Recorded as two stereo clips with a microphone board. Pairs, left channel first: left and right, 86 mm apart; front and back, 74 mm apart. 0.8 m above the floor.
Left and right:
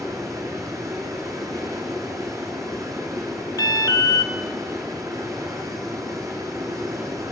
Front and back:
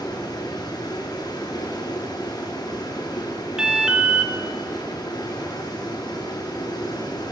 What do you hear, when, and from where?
0.0 s running water: 35° right, 7.5 m
3.6 s an alarm: 105° left, 1.6 m